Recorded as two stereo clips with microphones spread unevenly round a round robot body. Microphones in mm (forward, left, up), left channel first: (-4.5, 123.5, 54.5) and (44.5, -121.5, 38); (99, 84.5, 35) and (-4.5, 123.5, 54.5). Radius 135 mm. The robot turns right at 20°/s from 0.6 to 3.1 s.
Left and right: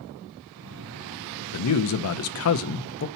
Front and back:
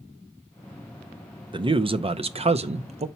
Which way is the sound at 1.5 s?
110° left.